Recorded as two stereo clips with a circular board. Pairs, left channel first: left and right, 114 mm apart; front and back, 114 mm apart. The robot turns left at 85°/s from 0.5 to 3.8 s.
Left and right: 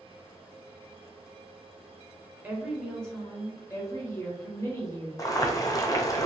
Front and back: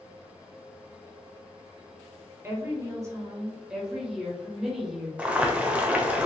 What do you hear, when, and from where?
2.4 s a woman speaking: 145° right, 1.0 m; by 5.1 s 100° left, 1.0 m
5.2 s boiling: 110° left, 0.6 m